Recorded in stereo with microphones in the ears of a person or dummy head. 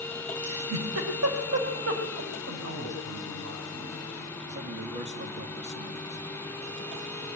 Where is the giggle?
80° right, 5 m.